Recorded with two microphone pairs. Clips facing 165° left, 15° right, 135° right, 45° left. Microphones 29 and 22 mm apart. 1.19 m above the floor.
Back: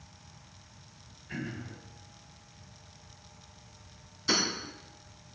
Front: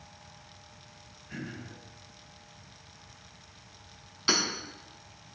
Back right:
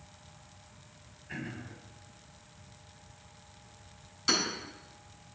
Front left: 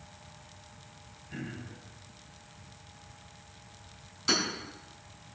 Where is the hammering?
50° right, 4.5 m.